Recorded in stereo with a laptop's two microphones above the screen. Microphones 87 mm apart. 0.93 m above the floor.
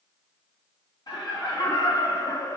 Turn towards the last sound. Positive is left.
turn(degrees=30)  # may be behind; listen again after turning